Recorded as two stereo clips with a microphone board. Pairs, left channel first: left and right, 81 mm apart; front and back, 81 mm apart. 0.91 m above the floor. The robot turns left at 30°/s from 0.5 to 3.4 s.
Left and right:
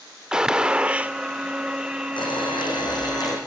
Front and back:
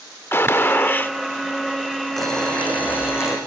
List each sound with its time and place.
0.3 s a gunshot: 20° right, 0.6 m; by 1.1 s 40° right, 0.6 m
2.2 s boiling: 85° left, 8.5 m; by 3.4 s 50° left, 8.5 m